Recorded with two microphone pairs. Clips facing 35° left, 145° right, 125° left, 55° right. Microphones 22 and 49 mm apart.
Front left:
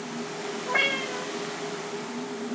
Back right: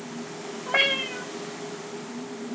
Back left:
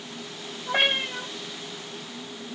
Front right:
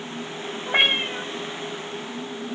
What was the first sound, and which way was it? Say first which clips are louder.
A cat meowing: back right 2 dB, front right 3 dB; 100° right.